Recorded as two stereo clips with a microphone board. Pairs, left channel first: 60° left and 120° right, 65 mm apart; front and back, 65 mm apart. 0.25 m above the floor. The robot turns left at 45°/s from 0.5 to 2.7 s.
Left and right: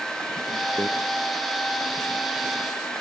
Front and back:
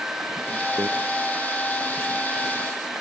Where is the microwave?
160° right; by 0.9 s 165° right.